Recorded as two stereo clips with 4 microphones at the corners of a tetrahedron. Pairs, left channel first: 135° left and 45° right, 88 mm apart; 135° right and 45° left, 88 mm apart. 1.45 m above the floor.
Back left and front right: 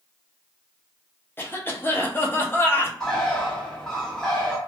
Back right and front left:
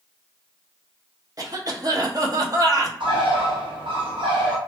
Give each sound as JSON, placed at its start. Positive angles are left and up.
{"t": 1.4, "sound": "a cough", "azimuth_deg": 75, "distance_m": 0.6}
{"t": 3.0, "sound": "a bird", "azimuth_deg": 50, "distance_m": 0.7}